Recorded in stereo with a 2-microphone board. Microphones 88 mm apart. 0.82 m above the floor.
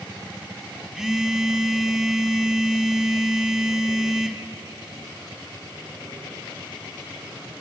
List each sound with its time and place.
0.9 s a phone buzzing: 10° right (ahead or behind), 1.3 m